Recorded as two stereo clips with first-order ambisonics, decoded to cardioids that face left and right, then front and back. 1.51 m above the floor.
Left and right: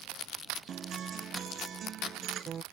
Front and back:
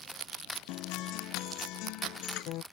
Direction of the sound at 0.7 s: 30° right.